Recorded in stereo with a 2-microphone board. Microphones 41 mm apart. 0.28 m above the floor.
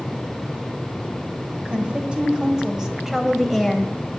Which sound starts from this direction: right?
A woman speaking, at 1.6 s.